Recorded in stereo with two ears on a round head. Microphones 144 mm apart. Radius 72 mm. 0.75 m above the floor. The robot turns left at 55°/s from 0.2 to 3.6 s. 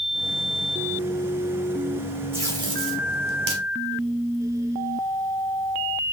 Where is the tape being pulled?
15° right (ahead or behind), 3 m; by 3.6 s 80° right, 3 m.